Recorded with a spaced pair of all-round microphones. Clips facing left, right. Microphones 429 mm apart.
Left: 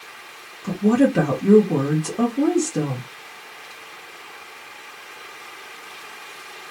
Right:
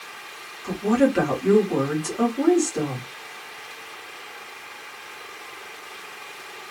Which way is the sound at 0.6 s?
55° left (ahead or behind).